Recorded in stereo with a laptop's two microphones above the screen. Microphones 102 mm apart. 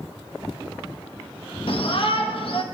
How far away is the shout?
About 1.1 m.